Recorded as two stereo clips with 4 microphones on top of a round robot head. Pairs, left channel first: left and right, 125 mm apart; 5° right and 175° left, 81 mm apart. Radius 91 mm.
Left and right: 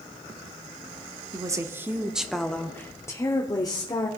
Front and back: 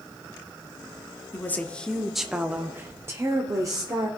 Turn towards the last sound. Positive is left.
turn(degrees=140)